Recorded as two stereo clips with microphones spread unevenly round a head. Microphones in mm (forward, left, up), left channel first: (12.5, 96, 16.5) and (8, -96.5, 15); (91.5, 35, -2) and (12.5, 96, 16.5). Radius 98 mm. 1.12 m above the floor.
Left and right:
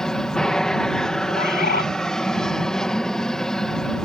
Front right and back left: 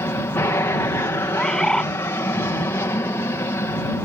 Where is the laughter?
No laughter in this recording.